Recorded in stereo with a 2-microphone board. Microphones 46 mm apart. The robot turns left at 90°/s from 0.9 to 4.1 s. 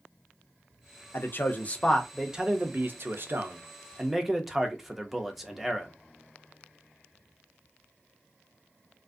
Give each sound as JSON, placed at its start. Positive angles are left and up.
{"t": 1.1, "sound": "a man speaking", "azimuth_deg": 90, "distance_m": 0.6}